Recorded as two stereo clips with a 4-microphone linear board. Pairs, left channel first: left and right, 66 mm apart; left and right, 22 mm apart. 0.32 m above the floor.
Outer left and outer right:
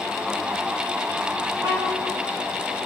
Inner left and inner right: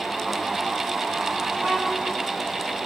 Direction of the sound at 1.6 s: 85° right.